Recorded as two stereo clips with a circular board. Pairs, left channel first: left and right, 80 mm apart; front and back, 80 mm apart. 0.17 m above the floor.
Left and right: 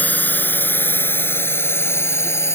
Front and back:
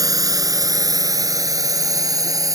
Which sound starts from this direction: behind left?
A drone, at 0.0 s.